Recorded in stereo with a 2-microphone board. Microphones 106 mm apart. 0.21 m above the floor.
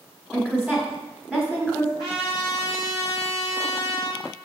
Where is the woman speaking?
5° right (ahead or behind), 1.1 m.